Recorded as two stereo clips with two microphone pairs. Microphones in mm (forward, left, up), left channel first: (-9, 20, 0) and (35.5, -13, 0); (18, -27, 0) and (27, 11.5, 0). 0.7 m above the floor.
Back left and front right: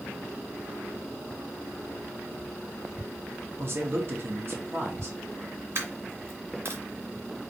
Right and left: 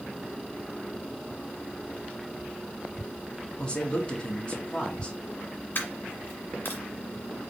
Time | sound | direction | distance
3.6 | a man speaking | 50° right | 1.7 m
5.8 | a dropped coin | 75° right | 2.0 m